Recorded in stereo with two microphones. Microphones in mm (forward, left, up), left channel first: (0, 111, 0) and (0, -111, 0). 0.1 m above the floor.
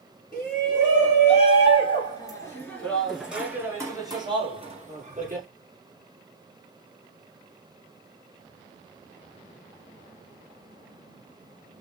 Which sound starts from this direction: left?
A shout, at 0.3 s.